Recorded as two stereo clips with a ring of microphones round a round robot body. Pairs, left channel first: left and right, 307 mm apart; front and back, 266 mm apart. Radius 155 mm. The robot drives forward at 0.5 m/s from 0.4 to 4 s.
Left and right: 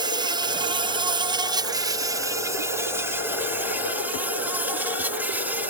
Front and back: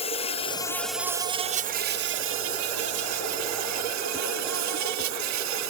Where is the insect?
35° right; by 5.7 s 175° right.